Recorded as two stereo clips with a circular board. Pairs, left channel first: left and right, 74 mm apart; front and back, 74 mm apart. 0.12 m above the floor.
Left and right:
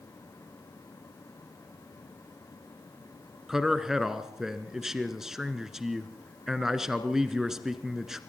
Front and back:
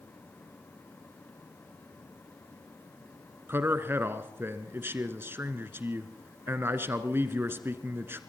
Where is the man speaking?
170° right, 1.4 m.